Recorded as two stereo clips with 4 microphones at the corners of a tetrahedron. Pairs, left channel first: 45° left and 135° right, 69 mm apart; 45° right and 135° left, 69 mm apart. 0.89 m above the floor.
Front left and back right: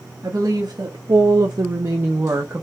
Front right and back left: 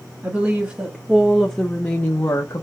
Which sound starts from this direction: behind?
A woman speaking, at 0.2 s.